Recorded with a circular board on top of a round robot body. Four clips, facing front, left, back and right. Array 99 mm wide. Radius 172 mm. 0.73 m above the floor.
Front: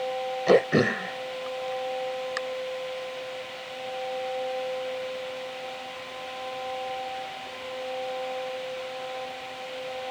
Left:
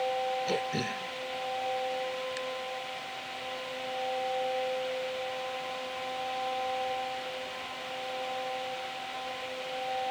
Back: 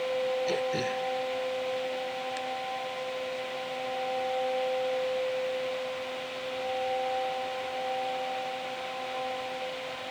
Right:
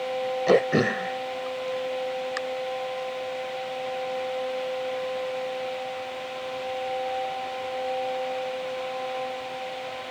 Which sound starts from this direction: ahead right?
Throat clearing, at 0.5 s.